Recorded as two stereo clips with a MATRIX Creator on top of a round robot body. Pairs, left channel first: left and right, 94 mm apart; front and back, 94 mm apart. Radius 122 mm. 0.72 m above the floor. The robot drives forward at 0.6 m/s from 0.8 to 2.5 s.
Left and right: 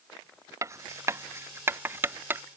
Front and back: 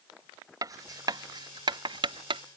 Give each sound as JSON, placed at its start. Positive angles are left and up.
{"t": 0.6, "sound": "writing", "azimuth_deg": -140}